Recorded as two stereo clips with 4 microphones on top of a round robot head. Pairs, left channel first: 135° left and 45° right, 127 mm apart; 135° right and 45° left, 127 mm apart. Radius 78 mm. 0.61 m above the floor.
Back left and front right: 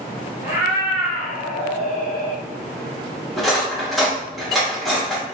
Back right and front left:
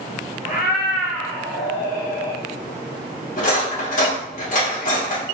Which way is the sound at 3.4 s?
135° right.